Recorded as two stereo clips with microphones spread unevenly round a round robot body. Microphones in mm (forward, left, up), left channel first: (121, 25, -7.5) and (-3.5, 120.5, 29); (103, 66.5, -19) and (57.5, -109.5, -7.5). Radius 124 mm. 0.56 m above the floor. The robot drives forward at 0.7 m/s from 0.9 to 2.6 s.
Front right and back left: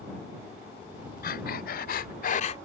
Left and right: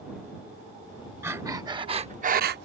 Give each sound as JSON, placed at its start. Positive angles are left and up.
{"t": 1.2, "sound": "breathing", "azimuth_deg": -25}